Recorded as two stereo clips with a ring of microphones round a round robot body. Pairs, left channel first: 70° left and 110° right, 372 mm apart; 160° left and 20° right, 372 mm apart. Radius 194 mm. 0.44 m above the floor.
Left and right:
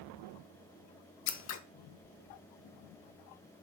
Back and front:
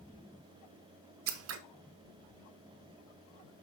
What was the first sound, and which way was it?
Scissors, 20° left.